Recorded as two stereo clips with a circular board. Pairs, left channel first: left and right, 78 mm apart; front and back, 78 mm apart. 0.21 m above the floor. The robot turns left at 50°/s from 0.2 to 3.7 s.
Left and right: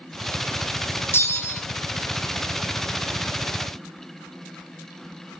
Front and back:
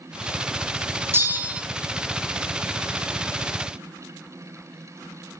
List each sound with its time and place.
1.1 s a bell: 135° left, 1.1 m; by 1.6 s 110° left, 1.1 m